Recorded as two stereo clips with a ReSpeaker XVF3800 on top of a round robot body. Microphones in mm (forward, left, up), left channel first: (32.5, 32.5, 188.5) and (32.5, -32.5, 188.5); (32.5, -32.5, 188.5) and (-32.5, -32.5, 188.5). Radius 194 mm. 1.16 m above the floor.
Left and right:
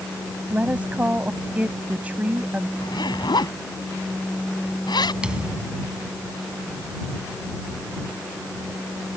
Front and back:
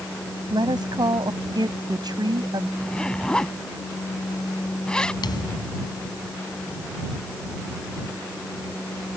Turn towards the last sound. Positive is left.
turn(degrees=-10)